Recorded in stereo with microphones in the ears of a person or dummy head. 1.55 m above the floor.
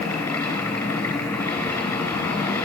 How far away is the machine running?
About 6.5 m.